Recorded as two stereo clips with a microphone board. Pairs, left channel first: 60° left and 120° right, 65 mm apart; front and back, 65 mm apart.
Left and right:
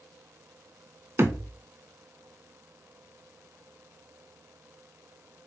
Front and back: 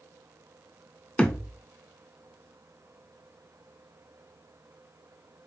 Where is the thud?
70° right, 0.5 m.